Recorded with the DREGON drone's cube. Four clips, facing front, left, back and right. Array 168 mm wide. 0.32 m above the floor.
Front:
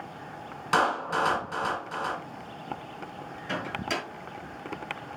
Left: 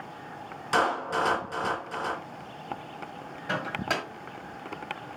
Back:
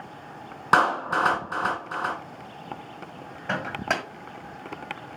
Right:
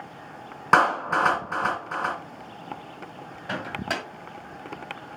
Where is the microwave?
175° right, 1.7 m.